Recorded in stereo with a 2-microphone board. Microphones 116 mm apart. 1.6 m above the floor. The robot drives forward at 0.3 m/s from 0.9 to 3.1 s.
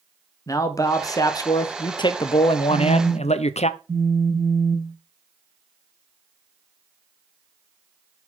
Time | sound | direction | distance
0.5 | a man speaking | 30° left (ahead or behind) | 0.9 m
2.7 | a phone buzzing | 30° right (ahead or behind) | 1.3 m